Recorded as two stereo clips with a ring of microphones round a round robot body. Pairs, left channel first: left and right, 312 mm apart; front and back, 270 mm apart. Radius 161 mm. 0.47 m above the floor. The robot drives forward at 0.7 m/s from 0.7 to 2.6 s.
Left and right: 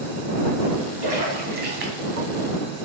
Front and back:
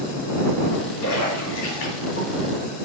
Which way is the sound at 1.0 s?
25° right.